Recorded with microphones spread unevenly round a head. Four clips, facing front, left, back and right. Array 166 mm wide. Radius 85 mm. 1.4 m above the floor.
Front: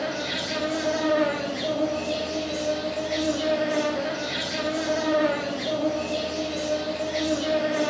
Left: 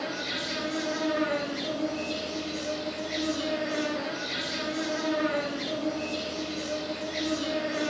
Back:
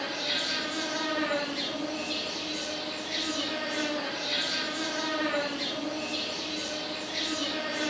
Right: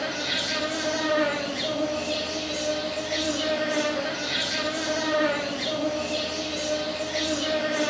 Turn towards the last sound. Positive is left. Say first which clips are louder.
# right 3 dB, front 5 dB
turn(degrees=-35)